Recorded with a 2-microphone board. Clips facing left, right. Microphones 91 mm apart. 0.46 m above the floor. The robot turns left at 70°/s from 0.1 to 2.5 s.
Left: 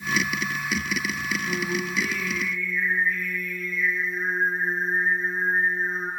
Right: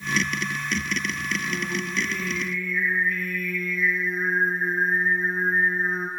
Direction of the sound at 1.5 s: 15° left.